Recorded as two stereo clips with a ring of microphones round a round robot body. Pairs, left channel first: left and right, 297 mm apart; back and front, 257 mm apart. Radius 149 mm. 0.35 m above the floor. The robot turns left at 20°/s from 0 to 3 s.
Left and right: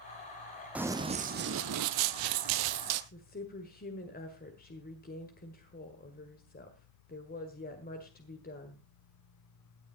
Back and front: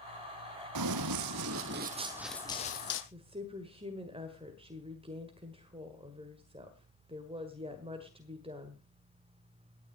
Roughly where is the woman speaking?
Ahead left.